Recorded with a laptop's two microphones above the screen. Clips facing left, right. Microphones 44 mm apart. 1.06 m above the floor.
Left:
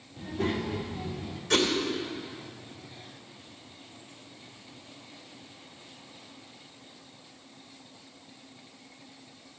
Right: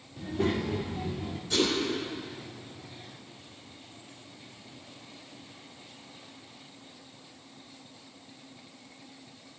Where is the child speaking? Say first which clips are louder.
Right 1 dB; 5° right (ahead or behind), 1.8 m; by 1.4 s 30° right (ahead or behind), 1.6 m.